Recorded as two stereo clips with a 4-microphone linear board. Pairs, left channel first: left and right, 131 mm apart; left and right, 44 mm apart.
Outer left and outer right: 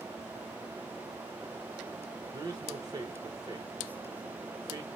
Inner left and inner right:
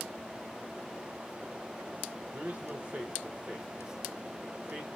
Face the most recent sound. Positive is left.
turn(degrees=-30)  # may be behind; listen again after turning